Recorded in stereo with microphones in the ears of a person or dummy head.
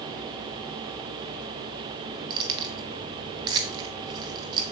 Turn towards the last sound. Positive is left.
turn(degrees=-25)  # may be behind; listen again after turning